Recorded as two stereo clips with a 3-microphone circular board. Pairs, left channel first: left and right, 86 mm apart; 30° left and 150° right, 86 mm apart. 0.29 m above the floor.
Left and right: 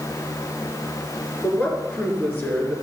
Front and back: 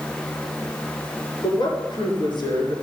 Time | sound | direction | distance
1.4 | a woman speaking | 20° left | 4.5 m